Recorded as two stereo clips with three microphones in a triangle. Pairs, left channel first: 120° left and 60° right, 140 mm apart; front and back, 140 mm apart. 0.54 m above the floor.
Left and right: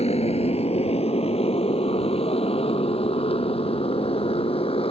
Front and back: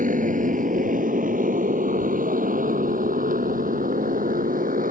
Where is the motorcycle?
160° left; by 4.9 s 170° left.